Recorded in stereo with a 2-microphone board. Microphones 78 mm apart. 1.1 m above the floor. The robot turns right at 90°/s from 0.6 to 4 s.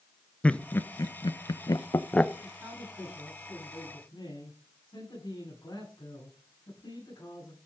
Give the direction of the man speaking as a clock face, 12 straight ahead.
2 o'clock.